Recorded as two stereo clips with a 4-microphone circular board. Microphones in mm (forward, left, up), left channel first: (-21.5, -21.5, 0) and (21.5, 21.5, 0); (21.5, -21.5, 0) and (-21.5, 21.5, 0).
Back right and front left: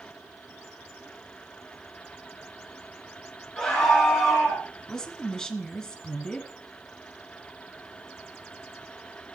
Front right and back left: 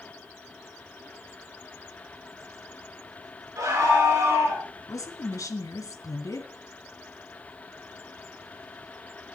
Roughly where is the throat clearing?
I don't hear throat clearing.